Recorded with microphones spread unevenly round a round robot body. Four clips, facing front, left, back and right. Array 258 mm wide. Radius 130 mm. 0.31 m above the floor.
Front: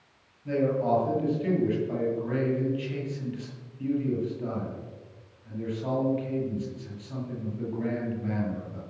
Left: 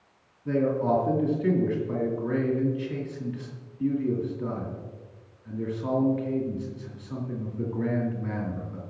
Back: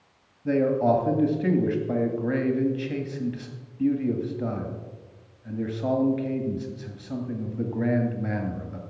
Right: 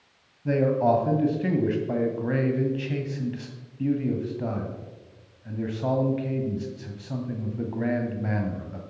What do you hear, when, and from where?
0.5 s a man speaking: 125° right, 1.9 m